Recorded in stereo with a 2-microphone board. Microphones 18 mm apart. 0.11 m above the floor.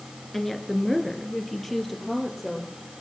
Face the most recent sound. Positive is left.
turn(degrees=5)  # may be behind; listen again after turning